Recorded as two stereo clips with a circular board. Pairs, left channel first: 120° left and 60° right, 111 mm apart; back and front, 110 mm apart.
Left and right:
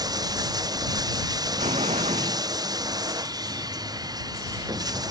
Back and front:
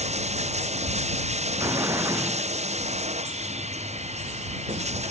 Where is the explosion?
65° right.